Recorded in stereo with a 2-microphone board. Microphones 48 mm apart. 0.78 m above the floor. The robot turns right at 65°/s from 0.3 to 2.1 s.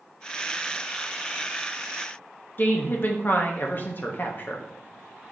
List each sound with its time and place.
2.6 s a woman speaking: 40° left (ahead or behind), 0.6 m